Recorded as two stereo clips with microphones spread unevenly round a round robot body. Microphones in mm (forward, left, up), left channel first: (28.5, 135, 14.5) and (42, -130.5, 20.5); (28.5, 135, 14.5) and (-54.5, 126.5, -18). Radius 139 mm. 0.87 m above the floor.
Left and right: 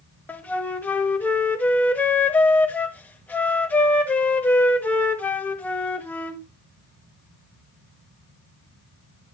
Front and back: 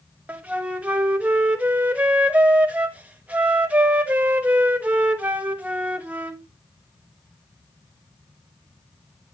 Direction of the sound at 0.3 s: 170° left.